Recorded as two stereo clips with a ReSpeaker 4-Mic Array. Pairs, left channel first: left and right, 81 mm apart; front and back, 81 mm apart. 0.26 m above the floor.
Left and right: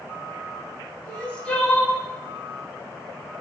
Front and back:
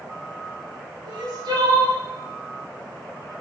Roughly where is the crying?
Behind.